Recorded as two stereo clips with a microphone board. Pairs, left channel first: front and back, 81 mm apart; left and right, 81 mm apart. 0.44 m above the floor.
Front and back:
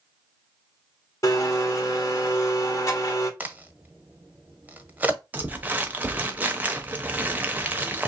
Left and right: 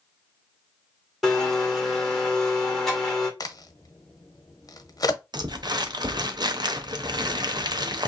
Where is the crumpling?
115° right, 0.6 m.